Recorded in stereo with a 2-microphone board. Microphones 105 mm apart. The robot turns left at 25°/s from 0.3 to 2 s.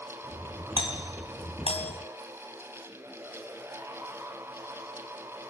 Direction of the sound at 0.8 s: 45° left (ahead or behind).